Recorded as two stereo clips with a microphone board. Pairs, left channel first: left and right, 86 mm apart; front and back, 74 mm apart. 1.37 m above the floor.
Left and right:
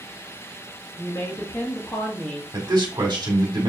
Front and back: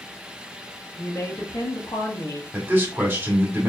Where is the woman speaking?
55° left, 1.2 m; by 2.4 s 15° left, 1.0 m.